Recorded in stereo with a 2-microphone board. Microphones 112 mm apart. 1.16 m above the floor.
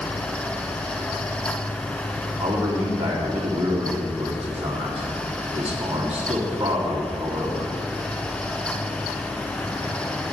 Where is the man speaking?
80° right, 3 m.